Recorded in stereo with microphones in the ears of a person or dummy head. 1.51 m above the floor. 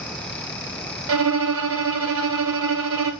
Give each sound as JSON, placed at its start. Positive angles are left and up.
{"t": 1.1, "sound": "a violin", "side_deg": -75, "distance_m": 1.3}